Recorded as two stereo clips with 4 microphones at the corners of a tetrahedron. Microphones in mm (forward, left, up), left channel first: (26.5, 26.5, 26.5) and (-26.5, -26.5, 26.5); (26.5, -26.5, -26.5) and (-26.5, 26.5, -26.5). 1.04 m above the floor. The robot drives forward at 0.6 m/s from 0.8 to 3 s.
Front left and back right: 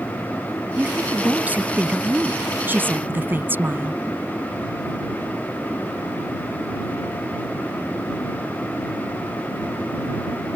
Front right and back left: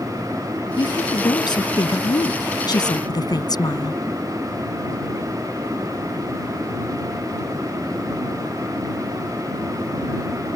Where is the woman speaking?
65° right; by 4.0 s 70° right.